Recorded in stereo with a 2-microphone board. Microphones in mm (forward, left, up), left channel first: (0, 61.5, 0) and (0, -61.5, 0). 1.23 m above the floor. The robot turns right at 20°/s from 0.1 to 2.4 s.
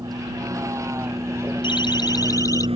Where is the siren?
40° left (ahead or behind); by 2.7 s 30° left (ahead or behind).